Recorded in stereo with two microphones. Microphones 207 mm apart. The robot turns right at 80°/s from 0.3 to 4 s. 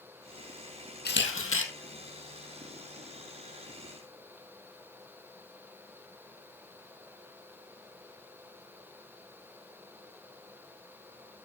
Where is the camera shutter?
50° left, 2 m; by 1.7 s 100° left, 2 m.